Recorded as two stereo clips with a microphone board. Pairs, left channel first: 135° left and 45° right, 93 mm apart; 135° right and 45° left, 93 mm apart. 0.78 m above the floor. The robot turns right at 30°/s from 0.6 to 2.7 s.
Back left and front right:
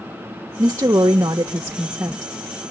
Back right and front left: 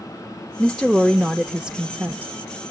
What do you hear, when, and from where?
0.6 s a woman speaking: 55° right, 0.8 m; by 2.3 s 5° right, 0.8 m